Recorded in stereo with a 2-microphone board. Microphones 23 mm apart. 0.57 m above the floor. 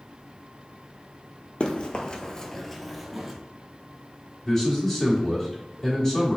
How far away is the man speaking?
About 1.5 m.